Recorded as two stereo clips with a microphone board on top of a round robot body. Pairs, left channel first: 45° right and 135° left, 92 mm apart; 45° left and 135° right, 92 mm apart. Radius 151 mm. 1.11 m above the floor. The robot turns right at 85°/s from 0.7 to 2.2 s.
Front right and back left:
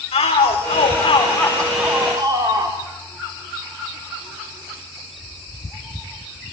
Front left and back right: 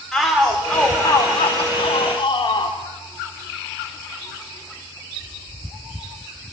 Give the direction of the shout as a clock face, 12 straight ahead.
1 o'clock.